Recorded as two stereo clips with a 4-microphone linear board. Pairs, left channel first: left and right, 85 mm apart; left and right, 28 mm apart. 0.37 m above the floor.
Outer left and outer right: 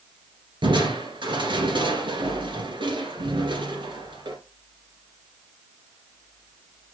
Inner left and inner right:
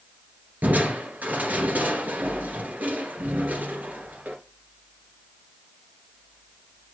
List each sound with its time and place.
0.6 s crushing: 70° right (ahead or behind), 2 m